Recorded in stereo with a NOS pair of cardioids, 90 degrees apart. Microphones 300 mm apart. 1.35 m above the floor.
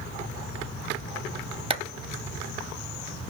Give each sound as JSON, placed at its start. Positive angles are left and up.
{"t": 1.7, "sound": "a clap", "azimuth_deg": -20, "distance_m": 0.7}